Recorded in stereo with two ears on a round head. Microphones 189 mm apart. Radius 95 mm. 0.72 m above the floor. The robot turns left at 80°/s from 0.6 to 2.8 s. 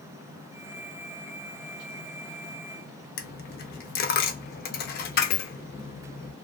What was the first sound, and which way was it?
A dropped coin, 50° left (ahead or behind).